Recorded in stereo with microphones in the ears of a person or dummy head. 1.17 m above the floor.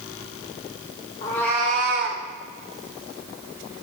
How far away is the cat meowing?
About 0.8 m.